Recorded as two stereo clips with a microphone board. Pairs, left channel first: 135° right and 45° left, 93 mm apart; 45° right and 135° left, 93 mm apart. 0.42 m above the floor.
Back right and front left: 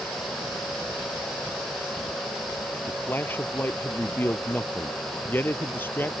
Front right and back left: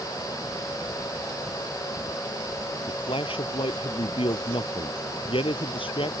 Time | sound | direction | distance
2.9 | a man speaking | 65° right | ?